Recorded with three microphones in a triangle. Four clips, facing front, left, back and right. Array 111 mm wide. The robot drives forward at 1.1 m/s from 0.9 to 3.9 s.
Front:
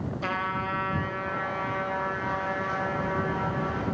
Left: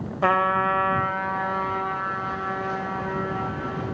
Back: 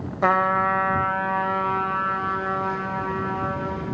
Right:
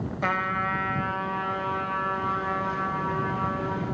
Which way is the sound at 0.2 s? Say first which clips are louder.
Left 7 dB, back 12 dB; 145° left.